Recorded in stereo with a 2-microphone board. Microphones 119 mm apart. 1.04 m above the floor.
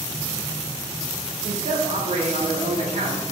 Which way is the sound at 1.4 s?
70° right (ahead or behind).